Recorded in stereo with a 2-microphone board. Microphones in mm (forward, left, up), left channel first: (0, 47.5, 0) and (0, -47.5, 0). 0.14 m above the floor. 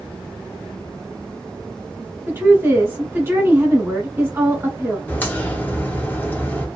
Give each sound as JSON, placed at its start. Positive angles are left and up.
{"t": 2.3, "sound": "a woman speaking", "side_deg": -25, "distance_m": 1.4}
{"t": 5.1, "sound": "a crack", "side_deg": 20, "distance_m": 1.1}